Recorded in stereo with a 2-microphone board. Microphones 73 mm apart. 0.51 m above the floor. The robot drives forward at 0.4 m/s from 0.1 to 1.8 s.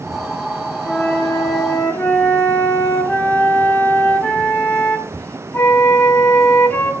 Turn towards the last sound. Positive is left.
turn(degrees=25)  # may be behind; listen again after turning